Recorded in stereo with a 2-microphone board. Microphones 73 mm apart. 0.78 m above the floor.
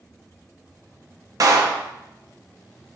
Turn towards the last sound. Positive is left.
turn(degrees=-50)  # may be behind; listen again after turning